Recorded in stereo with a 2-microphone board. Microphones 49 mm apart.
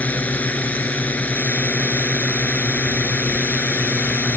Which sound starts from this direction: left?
A drone, at 0.0 s.